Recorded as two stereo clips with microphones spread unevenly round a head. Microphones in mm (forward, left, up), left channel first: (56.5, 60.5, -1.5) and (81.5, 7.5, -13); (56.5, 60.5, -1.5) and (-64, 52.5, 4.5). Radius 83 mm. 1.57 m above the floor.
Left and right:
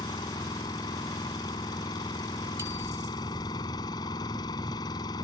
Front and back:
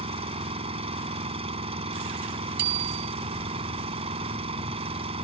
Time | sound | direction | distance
0.0 | an engine running | 140° left | ?
2.6 | a bicycle bell | 140° right | ?